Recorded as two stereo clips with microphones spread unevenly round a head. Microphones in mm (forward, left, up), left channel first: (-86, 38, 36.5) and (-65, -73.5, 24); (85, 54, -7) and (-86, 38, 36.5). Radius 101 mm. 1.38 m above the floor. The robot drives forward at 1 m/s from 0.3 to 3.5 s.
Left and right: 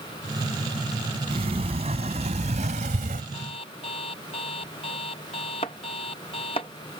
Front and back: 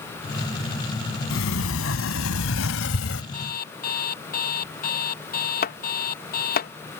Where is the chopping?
40° left.